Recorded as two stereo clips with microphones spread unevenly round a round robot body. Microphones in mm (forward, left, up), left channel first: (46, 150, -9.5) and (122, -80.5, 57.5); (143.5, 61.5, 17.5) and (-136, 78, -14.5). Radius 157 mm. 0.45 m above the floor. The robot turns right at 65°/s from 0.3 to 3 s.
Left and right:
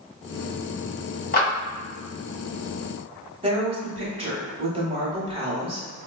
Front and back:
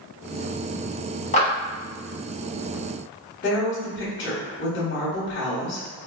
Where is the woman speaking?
5° left, 1.1 m.